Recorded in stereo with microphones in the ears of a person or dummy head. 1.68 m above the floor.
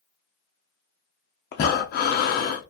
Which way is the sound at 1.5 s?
50° left (ahead or behind).